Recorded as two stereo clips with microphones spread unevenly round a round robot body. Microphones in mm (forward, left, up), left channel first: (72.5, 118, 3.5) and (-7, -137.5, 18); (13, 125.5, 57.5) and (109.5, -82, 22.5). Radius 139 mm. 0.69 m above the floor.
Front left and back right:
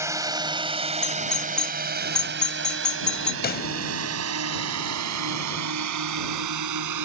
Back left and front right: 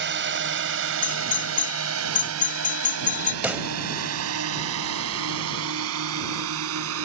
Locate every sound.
0.0 s a drone: 30° right; by 7.1 s 95° right
1.0 s a doorbell: 150° left
3.4 s a pop: 20° left